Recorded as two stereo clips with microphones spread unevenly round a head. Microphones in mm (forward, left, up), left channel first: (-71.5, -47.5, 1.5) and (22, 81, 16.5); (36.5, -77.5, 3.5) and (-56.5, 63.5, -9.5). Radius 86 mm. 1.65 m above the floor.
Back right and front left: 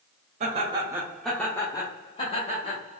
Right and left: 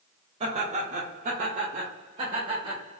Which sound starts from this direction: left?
Laughter, at 0.4 s.